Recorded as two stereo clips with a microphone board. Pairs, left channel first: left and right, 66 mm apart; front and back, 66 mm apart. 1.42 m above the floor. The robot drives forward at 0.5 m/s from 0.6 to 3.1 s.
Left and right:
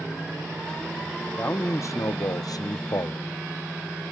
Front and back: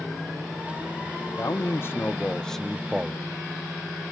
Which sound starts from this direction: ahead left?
A man speaking, at 1.4 s.